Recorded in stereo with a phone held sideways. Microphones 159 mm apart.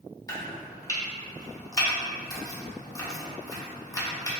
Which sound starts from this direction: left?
Chopping, at 0.3 s.